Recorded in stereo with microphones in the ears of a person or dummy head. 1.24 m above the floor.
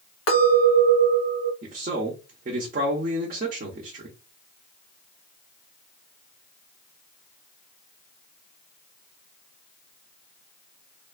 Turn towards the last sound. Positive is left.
turn(degrees=-45)  # may be behind; listen again after turning